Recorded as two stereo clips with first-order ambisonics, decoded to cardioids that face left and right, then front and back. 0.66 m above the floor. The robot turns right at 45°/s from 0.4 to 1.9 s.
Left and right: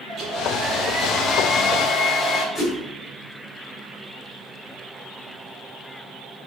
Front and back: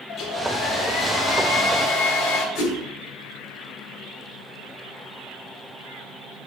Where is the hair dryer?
40° right, 2.5 m; by 2.5 s 25° left, 2.5 m.